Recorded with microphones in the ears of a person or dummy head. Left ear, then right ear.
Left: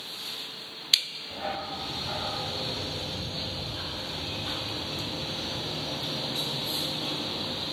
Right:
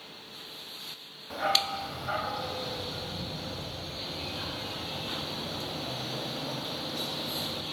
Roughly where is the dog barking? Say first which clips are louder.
Right 8 dB; right.